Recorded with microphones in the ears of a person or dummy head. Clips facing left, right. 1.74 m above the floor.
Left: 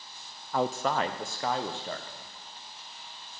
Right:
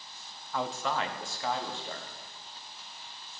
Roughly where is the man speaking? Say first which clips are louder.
Left 4 dB; left.